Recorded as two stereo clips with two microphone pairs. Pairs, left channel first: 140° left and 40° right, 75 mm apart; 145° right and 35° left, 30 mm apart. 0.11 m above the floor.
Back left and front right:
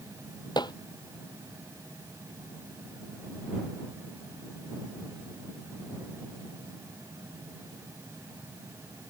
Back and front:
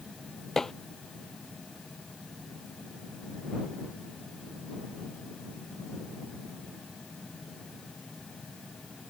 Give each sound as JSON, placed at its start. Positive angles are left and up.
{"t": 0.6, "sound": "dishes clattering", "azimuth_deg": 140}